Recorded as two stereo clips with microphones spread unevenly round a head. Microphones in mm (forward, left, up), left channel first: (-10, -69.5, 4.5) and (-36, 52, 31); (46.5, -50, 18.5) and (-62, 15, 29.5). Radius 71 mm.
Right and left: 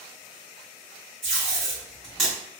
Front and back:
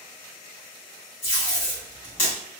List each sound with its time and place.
1.2 s tape being pulled: 20° left, 1.8 m